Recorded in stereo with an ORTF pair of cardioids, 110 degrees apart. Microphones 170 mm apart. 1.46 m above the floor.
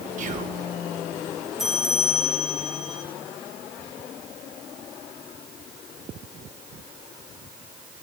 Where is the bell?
Straight ahead, 1.4 m.